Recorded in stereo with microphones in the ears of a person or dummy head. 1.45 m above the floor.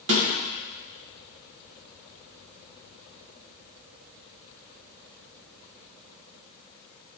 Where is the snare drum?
70° right (ahead or behind), 2.5 m.